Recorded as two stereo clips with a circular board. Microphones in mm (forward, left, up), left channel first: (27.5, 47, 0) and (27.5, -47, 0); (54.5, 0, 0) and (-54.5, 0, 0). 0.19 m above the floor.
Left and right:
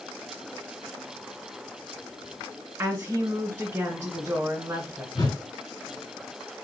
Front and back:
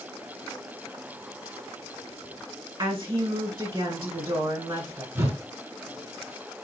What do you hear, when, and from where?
2.8 s a woman speaking: 150° right, 1.8 m
5.2 s a whoosh: 120° left, 0.9 m